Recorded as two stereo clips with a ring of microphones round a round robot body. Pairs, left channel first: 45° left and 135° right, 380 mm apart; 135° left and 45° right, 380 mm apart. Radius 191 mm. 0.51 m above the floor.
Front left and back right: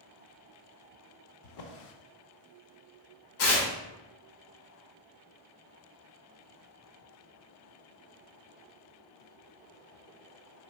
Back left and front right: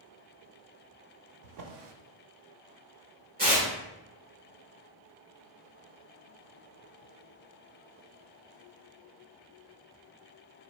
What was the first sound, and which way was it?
A drawer, straight ahead.